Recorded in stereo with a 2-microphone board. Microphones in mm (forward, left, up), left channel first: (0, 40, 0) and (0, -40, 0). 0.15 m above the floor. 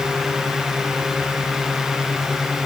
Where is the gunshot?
No gunshot in this recording.